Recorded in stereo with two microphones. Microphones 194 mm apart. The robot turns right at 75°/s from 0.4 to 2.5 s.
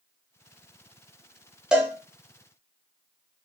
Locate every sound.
1.7 s a cowbell: 5° right (ahead or behind), 0.8 m; by 1.9 s 20° right (ahead or behind), 0.8 m